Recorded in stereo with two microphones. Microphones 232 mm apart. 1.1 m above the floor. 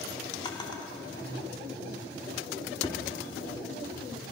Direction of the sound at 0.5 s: 20° left (ahead or behind).